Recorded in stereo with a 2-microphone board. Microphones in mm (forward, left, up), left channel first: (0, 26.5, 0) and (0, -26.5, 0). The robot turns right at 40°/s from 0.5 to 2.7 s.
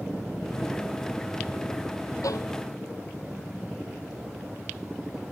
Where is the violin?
85° left; by 2.5 s 75° left (ahead or behind).